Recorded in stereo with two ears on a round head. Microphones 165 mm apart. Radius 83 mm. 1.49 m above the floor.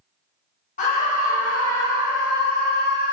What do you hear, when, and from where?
0.8 s a scream: 45° left (ahead or behind), 3 m; by 3.1 s 65° left (ahead or behind), 1.3 m